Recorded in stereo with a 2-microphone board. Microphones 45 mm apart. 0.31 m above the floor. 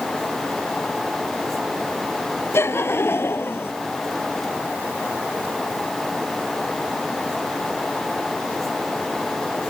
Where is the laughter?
65° left (ahead or behind); by 3.7 s 55° left (ahead or behind).